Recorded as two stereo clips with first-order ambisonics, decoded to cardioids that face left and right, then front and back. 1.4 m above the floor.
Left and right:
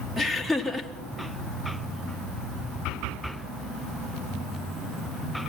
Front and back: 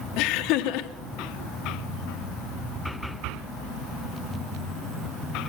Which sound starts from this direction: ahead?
Laughter, at 0.2 s.